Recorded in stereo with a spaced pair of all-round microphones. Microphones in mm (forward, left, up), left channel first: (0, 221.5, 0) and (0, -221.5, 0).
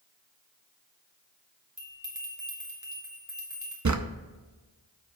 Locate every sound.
1.8 s a bell: 40° right (ahead or behind), 2 m
3.9 s a drawer: 40° right (ahead or behind), 0.6 m